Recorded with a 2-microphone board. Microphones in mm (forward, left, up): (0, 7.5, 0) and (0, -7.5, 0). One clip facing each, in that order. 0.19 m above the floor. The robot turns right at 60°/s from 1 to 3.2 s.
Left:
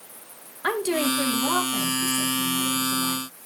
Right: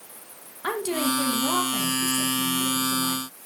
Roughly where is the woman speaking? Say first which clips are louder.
Left 2 dB; ahead.